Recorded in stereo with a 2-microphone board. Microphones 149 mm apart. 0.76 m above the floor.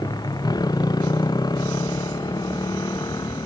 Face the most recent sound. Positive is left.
turn(degrees=25)  # may be behind; listen again after turning